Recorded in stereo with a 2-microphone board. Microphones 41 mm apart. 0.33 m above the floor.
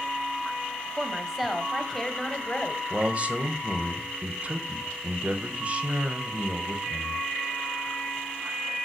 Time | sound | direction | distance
1.0 | a woman speaking | 15° right (ahead or behind) | 1.7 m
2.9 | a man speaking | 30° right (ahead or behind) | 1.3 m